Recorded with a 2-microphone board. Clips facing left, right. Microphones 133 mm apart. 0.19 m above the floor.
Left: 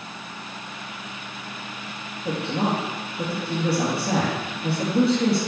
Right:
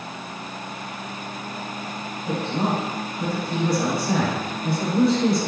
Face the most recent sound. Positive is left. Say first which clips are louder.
# even
turn(degrees=70)  # may be behind; listen again after turning